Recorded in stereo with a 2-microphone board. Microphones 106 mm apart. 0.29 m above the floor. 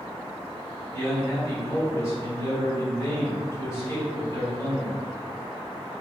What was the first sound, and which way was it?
A man speaking, 35° left (ahead or behind).